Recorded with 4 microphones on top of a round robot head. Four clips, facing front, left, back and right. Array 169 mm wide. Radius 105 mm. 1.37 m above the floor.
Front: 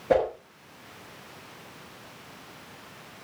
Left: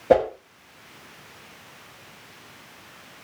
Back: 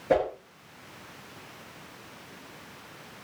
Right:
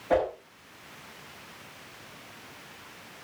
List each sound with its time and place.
0.1 s a whoosh: 85° left, 5.5 m